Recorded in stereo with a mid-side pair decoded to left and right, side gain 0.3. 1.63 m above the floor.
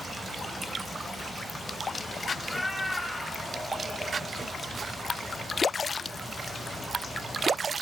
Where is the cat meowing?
25° left, 8.5 m.